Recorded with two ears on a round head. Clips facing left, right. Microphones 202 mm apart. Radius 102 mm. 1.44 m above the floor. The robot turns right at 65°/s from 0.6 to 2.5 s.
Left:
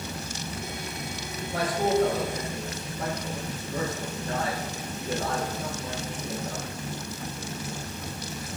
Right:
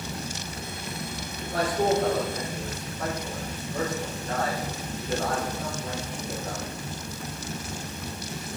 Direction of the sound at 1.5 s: 40° right (ahead or behind).